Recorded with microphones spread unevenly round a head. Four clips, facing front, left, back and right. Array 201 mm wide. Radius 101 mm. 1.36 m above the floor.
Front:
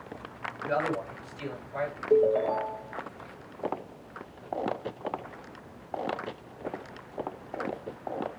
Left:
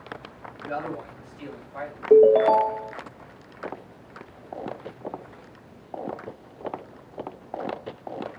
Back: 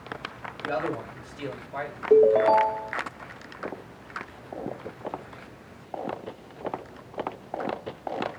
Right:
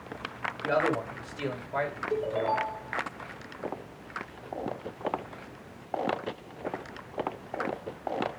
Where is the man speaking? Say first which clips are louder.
Right 5 dB, even; 105° right, 7 m.